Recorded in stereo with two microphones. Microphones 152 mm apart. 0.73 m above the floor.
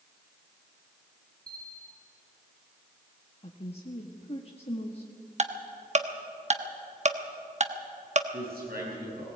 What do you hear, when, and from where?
1.5 s a bell: 80° right, 3.5 m
3.4 s a woman speaking: 40° left (ahead or behind), 1.3 m
5.4 s ticking: 50° right (ahead or behind), 1.1 m
8.3 s a man speaking: 85° right, 9 m